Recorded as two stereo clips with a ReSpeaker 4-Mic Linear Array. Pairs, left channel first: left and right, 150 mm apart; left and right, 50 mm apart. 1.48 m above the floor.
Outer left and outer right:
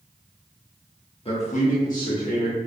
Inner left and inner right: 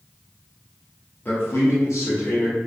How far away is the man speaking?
About 0.8 m.